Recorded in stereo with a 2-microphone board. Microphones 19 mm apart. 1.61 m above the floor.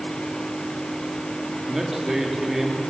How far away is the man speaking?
About 3.5 m.